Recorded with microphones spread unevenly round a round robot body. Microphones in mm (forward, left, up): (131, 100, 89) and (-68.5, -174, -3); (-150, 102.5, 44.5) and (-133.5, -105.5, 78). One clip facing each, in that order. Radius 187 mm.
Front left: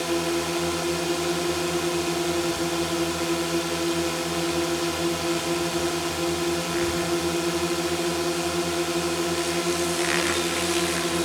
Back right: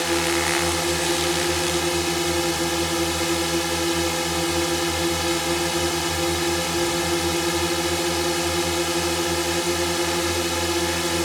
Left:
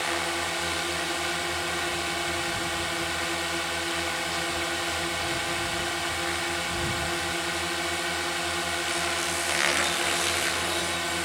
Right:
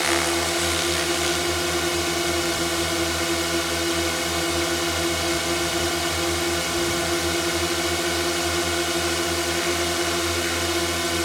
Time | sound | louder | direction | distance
0.0 | a drone | back right 1 dB, right 8 dB | 80° right | ?